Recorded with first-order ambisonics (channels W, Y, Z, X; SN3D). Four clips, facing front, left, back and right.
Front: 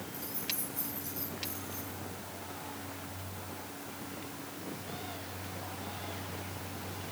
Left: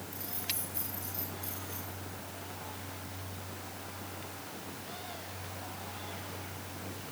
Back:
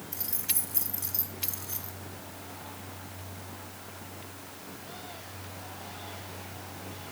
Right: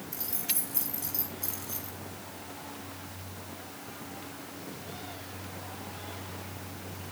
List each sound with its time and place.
0.1 s keys jangling: 145° right, 5.5 m